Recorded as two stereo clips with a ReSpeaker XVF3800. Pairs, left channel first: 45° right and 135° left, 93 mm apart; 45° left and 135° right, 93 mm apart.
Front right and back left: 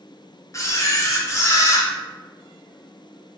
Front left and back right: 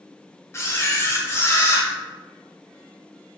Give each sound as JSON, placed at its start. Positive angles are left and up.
{"t": 0.5, "sound": "a camera shutter", "azimuth_deg": -5, "distance_m": 0.6}